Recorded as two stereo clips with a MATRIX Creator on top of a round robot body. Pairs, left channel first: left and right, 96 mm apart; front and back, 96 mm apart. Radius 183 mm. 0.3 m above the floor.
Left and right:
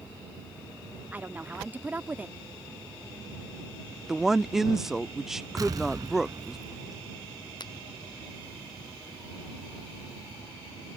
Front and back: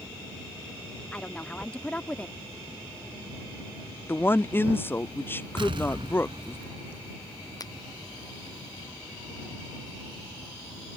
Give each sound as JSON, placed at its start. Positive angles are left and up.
{"t": 1.1, "sound": "a woman speaking", "azimuth_deg": -55}
{"t": 4.1, "sound": "a woman speaking", "azimuth_deg": -10}
{"t": 5.6, "sound": "an explosion", "azimuth_deg": -145}
{"t": 7.6, "sound": "a finger snap", "azimuth_deg": 50}